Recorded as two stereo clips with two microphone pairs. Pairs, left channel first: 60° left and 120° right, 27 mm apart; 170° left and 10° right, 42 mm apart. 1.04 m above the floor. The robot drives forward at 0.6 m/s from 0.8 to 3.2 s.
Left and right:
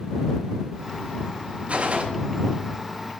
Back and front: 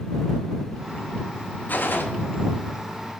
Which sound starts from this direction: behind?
A gunshot, at 1.7 s.